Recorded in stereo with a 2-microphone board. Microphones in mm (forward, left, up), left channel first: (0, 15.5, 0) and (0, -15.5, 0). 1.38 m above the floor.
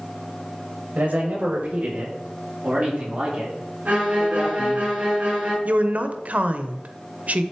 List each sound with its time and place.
0.9 s a man speaking: 60° right (ahead or behind), 2 m; by 4.8 s 30° right (ahead or behind), 5 m
3.9 s a violin: 55° right (ahead or behind), 4 m
5.7 s a woman speaking: 50° right (ahead or behind), 0.7 m